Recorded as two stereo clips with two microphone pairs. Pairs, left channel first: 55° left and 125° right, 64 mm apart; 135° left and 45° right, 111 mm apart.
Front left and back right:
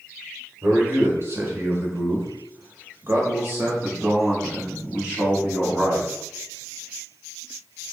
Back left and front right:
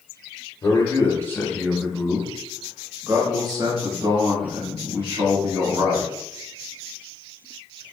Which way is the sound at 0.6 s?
175° right.